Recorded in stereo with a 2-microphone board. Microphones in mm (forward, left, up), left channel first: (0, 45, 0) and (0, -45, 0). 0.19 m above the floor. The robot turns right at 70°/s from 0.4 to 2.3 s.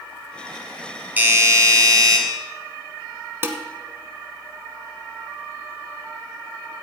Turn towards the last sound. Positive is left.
turn(degrees=-30)  # may be behind; listen again after turning